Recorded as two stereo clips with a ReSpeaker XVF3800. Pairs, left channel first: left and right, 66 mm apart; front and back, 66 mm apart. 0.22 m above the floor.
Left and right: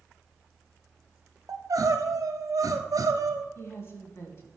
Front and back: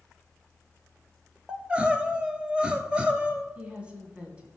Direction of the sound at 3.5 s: 115° left.